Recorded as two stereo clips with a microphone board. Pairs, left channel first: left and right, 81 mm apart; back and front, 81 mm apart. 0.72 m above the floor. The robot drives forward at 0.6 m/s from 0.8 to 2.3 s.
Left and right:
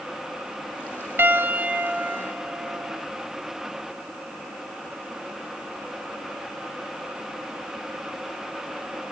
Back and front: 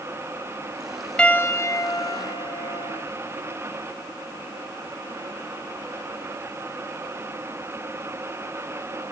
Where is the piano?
115° right, 0.5 m; by 3.0 s 165° right, 0.9 m.